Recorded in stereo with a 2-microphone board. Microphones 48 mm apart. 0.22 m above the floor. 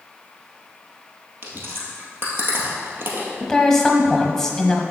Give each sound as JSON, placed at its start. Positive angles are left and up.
{"t": 1.4, "sound": "chewing", "side_deg": -50, "distance_m": 1.9}
{"t": 3.4, "sound": "a woman speaking", "side_deg": 10, "distance_m": 1.0}